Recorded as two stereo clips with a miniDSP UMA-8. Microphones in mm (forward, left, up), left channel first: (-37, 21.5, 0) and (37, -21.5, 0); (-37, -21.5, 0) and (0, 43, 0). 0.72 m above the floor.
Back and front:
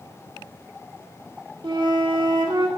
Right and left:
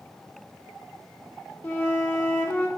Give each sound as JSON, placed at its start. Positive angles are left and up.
{"t": 1.6, "sound": "a flute", "azimuth_deg": -55, "distance_m": 0.6}